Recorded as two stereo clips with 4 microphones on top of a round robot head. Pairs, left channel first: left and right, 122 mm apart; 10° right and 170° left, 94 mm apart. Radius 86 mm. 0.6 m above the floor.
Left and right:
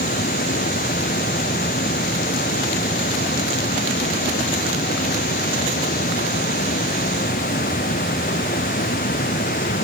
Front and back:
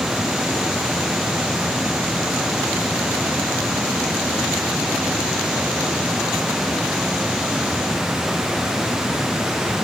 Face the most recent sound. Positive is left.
No sound to turn to.